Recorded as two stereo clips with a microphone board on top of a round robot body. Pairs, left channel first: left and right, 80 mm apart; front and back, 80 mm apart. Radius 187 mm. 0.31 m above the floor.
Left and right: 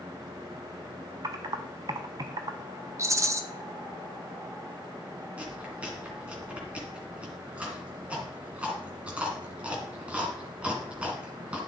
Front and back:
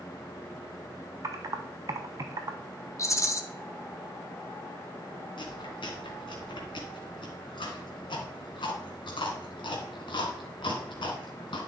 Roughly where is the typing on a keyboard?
Behind right.